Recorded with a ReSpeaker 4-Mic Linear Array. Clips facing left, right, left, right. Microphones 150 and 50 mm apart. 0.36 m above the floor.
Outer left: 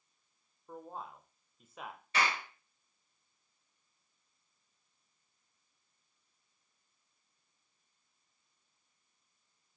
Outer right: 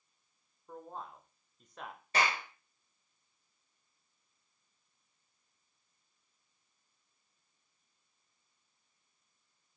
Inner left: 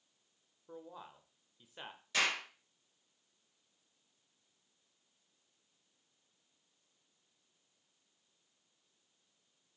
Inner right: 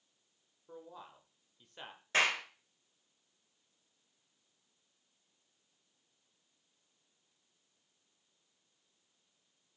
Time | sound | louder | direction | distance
0.7 | a man speaking | even, even | 5° left (ahead or behind) | 0.9 m
2.1 | a clap | outer right 1 dB, inner right 3 dB | 40° right (ahead or behind) | 3.5 m